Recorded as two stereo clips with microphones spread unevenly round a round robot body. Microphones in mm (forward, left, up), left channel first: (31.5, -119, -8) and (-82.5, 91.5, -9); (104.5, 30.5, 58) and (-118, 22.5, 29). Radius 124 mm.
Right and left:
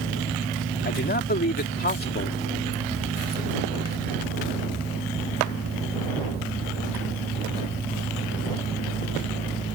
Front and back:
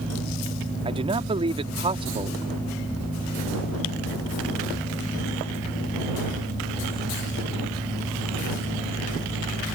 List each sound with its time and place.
0.8 s a man speaking: 110° right